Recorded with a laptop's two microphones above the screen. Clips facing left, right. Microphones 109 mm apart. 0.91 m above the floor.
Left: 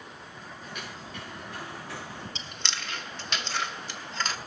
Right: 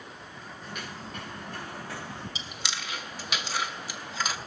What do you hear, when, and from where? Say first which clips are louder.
0.6 s footsteps: right 2 dB; 45° right (ahead or behind), 7.5 m; by 2.2 s 35° right (ahead or behind), 7 m
2.4 s chewing: even; 10° right (ahead or behind), 0.6 m